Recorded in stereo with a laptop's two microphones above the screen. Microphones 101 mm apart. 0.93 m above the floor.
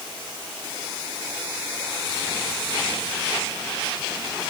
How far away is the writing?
I don't hear writing.